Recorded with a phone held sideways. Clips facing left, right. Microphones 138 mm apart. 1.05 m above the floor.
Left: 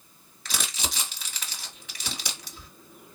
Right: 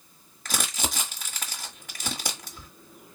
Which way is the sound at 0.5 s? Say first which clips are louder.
Right 3 dB; 50° right (ahead or behind).